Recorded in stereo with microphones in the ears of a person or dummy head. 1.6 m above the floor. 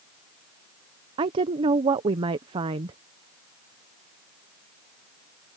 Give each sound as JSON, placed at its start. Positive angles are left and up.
{"t": 1.2, "sound": "a woman speaking", "side_deg": -25}